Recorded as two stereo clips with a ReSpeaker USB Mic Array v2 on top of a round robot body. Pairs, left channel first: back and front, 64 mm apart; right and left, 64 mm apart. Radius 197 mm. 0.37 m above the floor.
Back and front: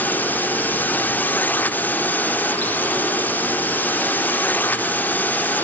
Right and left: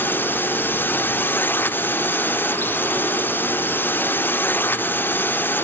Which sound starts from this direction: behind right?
A drone, at 0.0 s.